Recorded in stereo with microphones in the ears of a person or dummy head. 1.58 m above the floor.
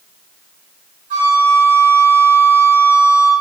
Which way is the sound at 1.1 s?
40° right (ahead or behind).